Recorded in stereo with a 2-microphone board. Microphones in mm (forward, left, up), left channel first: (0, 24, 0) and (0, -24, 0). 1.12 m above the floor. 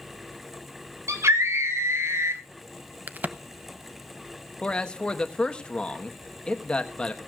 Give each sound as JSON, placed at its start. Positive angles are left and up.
{"t": 1.1, "sound": "a scream", "side_deg": -80, "distance_m": 2.5}
{"t": 3.1, "sound": "a crack", "side_deg": -40, "distance_m": 0.7}
{"t": 4.6, "sound": "a man speaking", "side_deg": 20, "distance_m": 1.3}